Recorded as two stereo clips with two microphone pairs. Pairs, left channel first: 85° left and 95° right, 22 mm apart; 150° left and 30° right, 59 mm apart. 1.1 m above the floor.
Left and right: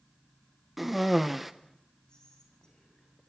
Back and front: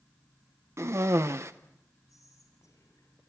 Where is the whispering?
130° left, 6.5 m.